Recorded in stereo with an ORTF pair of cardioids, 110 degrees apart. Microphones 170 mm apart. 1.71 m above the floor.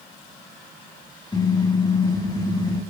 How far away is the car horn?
About 6 m.